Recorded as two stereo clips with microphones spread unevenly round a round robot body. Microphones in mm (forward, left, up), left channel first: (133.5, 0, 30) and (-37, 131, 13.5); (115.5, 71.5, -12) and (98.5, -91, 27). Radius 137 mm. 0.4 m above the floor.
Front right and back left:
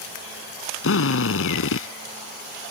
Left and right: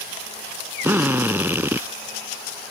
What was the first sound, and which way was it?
A drill, 20° right.